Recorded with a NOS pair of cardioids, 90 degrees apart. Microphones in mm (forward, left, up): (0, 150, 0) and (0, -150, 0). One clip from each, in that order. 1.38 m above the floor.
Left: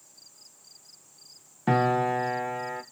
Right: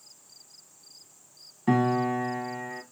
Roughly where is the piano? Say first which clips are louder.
Left 2 dB; ahead left.